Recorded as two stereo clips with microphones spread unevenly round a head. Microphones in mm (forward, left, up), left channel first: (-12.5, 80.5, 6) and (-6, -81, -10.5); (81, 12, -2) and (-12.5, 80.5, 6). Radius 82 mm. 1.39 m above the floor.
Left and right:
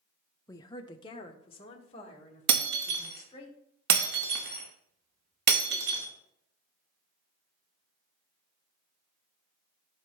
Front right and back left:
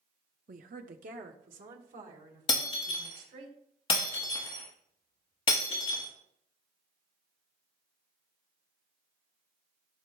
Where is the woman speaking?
165° left, 0.6 m; by 3.5 s 145° left, 3.5 m.